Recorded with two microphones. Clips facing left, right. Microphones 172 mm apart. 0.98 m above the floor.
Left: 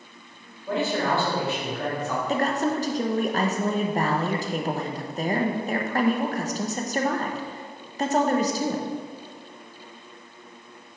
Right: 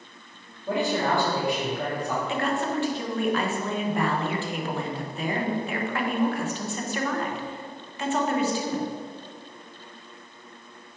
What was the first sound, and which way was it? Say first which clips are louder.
A man speaking: even; 15° right (ahead or behind).